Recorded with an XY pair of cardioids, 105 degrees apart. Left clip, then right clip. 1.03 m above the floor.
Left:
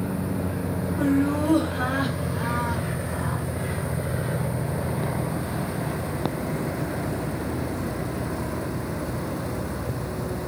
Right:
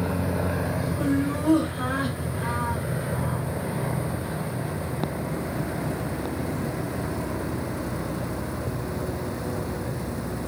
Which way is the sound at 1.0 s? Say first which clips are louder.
Left 4 dB; 50° left.